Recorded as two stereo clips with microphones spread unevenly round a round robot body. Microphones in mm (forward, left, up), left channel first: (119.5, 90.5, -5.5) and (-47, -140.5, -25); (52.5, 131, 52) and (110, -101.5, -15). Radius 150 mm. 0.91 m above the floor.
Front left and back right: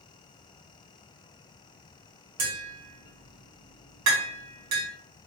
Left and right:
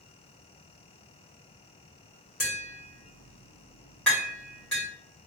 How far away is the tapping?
About 1.8 m.